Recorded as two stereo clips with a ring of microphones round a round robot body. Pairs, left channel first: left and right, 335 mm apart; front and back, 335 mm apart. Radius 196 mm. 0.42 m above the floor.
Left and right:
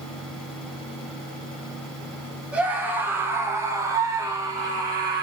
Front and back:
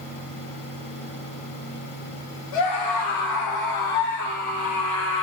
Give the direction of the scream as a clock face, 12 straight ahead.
12 o'clock.